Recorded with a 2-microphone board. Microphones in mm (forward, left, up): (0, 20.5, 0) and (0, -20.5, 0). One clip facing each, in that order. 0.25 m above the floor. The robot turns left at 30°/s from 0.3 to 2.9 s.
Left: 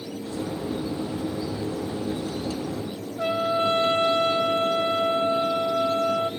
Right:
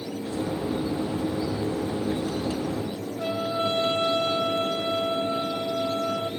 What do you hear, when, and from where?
3.2 s a trumpet: 40° left (ahead or behind), 0.9 m